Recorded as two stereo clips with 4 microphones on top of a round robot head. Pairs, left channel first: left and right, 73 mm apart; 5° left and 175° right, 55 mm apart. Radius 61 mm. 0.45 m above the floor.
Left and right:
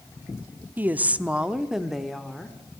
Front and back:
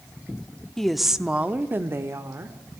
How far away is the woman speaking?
About 0.9 m.